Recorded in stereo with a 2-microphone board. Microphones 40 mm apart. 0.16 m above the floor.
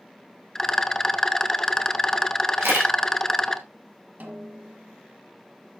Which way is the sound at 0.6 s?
15° left (ahead or behind).